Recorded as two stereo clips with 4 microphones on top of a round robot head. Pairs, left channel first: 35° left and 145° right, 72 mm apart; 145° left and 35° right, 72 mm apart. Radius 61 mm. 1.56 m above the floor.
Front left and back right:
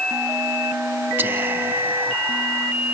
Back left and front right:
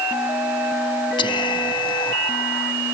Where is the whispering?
155° left, 3.5 m.